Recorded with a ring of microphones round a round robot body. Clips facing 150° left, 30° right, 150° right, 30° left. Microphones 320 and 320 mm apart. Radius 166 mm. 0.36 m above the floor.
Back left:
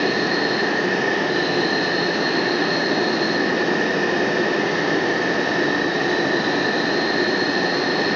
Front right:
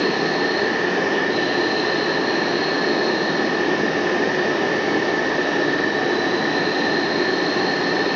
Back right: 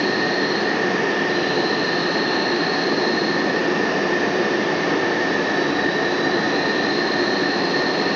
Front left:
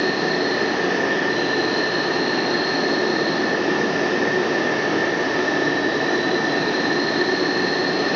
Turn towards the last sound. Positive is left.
turn(degrees=120)